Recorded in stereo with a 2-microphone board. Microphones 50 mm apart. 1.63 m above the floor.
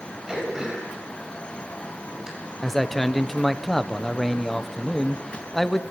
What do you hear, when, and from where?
0.3 s throat clearing: 10° right (ahead or behind), 6 m
2.6 s a man speaking: 5° left (ahead or behind), 1.1 m